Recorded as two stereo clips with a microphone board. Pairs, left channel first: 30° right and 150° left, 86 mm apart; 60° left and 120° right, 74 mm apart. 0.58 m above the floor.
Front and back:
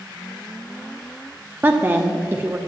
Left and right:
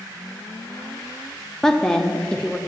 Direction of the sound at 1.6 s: 130° left.